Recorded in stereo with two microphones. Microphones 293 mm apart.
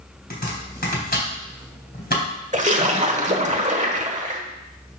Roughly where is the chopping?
Left.